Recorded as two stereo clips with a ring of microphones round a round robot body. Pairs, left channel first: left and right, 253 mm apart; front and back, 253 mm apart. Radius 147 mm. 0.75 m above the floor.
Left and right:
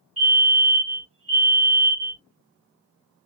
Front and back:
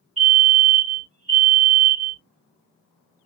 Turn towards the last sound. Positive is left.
turn(degrees=-140)